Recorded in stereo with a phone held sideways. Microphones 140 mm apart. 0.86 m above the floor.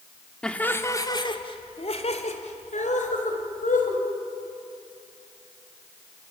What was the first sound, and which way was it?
Laughter, 5° left (ahead or behind).